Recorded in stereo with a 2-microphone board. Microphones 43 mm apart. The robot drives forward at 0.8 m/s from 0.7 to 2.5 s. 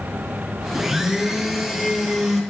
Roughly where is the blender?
Centre.